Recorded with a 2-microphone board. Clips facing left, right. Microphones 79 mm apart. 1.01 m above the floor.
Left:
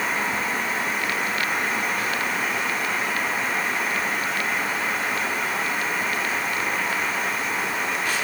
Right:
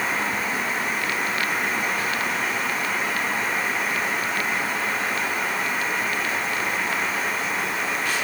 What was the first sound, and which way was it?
Only background noise.